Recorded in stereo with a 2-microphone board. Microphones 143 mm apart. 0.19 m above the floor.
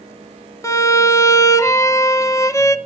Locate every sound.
0.6 s a violin: 20° left (ahead or behind), 0.7 m